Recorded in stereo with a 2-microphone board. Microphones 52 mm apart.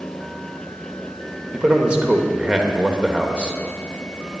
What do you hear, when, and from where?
1.5 s a man speaking: 20° right (ahead or behind), 0.9 m